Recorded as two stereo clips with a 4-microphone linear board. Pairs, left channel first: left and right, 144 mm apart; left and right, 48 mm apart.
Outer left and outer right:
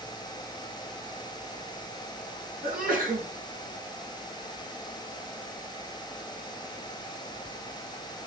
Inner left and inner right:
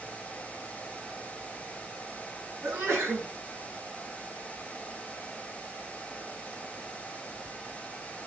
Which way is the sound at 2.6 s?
75° right (ahead or behind).